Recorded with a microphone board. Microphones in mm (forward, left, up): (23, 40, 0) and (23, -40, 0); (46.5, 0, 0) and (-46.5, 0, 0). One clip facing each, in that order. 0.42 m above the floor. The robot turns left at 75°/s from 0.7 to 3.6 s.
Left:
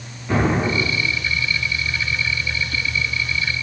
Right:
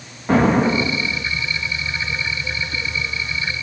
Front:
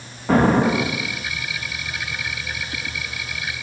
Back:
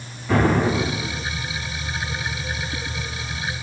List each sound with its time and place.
0.3 s an explosion: 40° right, 6.5 m; by 1.2 s 80° right, 6.5 m